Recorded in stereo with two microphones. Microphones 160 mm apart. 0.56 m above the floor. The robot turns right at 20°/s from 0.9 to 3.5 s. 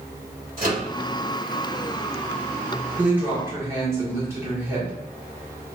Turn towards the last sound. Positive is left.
turn(degrees=-15)  # may be behind; listen again after turning